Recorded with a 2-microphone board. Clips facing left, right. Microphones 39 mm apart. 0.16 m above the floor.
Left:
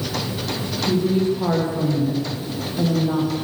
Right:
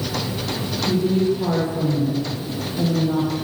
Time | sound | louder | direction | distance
0.9 | a woman speaking | even | 30° left (ahead or behind) | 8 m